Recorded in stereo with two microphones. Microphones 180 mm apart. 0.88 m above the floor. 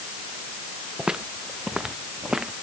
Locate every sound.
1.0 s footsteps: 5° right (ahead or behind)